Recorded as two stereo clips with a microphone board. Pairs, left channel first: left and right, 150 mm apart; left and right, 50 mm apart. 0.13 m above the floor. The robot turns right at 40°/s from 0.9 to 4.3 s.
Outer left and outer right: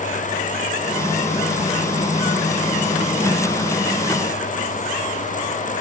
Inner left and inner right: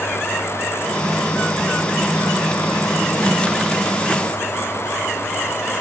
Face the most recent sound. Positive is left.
No sound to turn to.